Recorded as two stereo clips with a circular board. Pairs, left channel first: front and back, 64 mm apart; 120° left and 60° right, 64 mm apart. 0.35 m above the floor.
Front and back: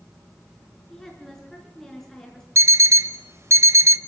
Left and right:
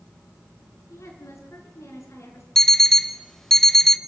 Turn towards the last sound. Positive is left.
turn(degrees=-160)